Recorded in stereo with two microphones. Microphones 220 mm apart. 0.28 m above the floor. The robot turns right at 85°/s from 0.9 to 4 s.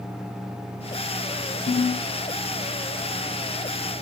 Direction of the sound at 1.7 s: 150° left.